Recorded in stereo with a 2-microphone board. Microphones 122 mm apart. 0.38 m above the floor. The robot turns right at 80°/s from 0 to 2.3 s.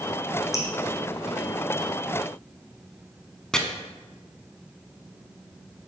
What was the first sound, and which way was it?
Dripping, 30° left (ahead or behind).